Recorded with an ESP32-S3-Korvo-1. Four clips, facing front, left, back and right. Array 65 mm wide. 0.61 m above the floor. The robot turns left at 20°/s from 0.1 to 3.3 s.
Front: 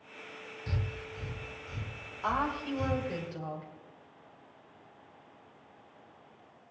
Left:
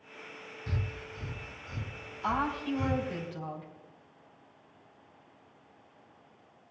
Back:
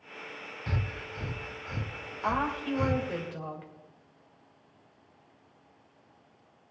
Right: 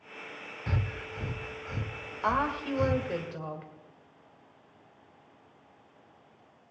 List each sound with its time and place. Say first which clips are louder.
0.7 s breathing: right 4 dB, back 3 dB; 120° right, 0.6 m; by 3.1 s 165° right, 0.6 m
2.2 s a woman speaking: right 2 dB, back 2 dB; 90° right, 2.5 m; by 3.7 s 115° right, 2.5 m